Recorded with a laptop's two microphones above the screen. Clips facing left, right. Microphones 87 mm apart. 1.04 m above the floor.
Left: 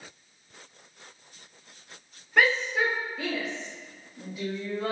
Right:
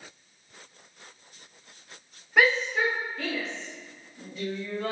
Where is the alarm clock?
I don't hear an alarm clock.